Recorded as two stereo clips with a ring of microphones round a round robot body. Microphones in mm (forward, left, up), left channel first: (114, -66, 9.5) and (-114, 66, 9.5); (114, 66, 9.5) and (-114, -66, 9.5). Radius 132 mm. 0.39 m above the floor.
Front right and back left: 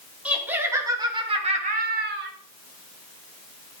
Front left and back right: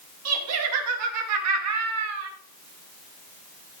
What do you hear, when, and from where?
0.2 s laughter: 125° right, 3.5 m; by 2.3 s 170° right, 2 m